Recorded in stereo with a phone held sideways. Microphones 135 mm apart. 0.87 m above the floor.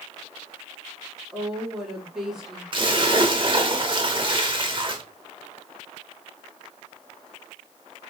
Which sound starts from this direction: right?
A splash, at 2.7 s.